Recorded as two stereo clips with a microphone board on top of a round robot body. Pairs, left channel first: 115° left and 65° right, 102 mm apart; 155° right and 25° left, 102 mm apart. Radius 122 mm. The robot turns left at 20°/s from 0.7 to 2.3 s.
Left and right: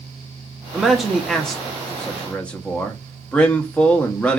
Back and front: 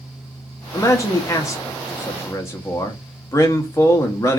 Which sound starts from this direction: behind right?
A man speaking, at 0.7 s.